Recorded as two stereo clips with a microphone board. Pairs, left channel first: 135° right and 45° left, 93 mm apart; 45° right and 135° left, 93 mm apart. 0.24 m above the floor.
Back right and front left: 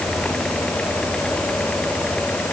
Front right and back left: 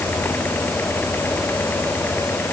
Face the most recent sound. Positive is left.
No sound to turn to.